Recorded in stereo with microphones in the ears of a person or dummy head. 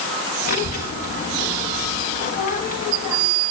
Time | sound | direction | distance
0.5 | a child speaking | 45° left (ahead or behind) | 1.1 m